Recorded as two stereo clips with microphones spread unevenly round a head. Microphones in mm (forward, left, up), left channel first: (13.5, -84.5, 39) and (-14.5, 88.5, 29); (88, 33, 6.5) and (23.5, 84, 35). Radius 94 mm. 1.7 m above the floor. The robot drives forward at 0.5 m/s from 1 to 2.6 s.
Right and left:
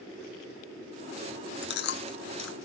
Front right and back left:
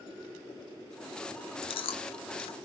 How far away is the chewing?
About 1.8 m.